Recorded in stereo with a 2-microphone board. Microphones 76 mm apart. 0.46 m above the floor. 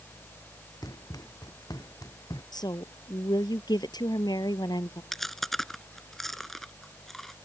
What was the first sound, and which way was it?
Running footsteps, 55° left (ahead or behind).